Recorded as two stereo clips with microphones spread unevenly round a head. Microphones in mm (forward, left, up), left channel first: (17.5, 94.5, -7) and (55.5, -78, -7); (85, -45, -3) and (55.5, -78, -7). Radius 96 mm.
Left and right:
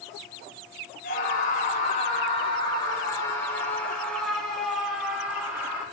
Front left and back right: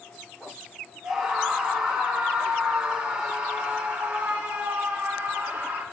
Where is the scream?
150° left, 4 m; by 5.8 s 155° right, 5.5 m.